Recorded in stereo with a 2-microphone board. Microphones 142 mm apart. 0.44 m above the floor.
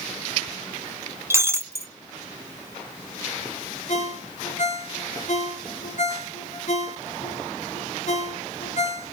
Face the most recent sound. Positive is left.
turn(degrees=60)  # may be behind; listen again after turning